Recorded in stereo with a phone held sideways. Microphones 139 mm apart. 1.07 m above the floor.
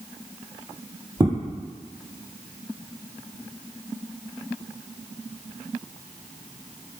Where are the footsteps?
30° right (ahead or behind), 1.4 m.